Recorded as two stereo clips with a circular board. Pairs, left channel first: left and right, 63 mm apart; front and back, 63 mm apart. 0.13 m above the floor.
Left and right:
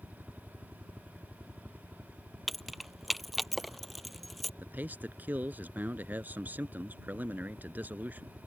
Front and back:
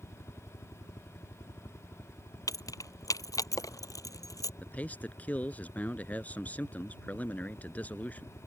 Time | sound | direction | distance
0.0 | a helicopter | 15° right | ?
2.5 | keys jangling | straight ahead | ?
4.6 | a man speaking | 50° right | ?